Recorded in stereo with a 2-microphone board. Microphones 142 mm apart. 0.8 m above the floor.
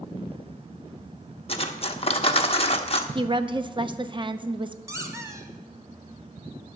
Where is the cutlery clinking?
45° left (ahead or behind), 0.8 m.